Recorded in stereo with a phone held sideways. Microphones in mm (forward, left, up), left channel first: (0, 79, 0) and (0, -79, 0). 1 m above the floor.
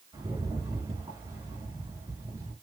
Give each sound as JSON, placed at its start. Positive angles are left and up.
{"t": 0.1, "sound": "a rattle", "side_deg": -25, "distance_m": 1.5}